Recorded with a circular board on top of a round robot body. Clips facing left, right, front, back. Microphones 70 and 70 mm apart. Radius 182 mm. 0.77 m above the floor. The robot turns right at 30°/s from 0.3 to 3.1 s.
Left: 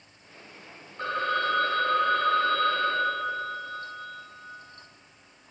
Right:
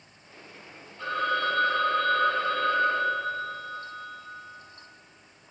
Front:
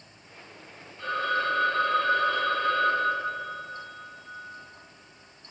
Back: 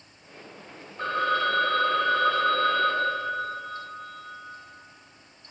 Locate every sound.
1.0 s a phone ringing: 135° left, 1.6 m; by 4.2 s 160° right, 1.6 m